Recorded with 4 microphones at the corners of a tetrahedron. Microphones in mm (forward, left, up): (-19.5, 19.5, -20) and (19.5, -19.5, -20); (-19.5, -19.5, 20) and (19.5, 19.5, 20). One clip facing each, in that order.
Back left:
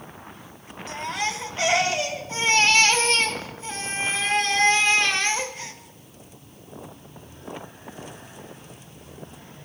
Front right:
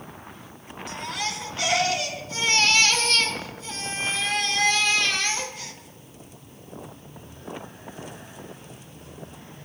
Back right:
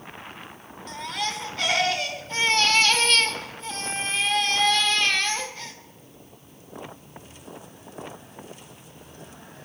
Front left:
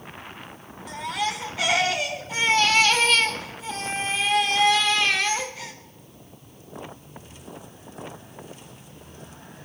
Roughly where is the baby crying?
Behind left.